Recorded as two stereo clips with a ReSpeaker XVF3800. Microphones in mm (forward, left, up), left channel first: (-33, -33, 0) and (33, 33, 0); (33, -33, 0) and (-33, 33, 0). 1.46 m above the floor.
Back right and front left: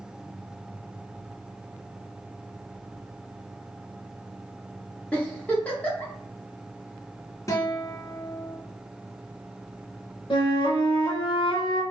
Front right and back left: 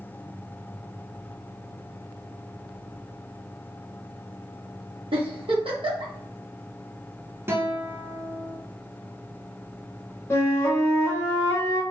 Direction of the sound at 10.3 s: 105° right.